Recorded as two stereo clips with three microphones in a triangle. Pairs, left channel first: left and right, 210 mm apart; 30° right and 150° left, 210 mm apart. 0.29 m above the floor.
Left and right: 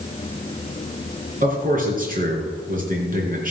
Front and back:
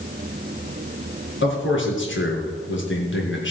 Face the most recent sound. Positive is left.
turn(degrees=-45)